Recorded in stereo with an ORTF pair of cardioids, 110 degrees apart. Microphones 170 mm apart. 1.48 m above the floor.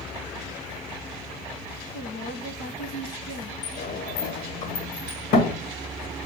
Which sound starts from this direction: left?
A sliding door, at 3.6 s.